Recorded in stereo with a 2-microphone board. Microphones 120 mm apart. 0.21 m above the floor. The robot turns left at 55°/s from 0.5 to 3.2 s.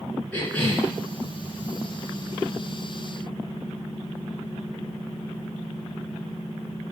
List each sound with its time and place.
0.3 s a cough: 15° left (ahead or behind), 2.5 m; by 0.9 s 5° right (ahead or behind), 2.5 m